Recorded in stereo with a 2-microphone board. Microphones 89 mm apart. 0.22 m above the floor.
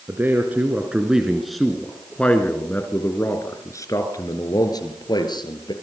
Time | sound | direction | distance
0.1 | a man speaking | 25° right (ahead or behind) | 2.5 m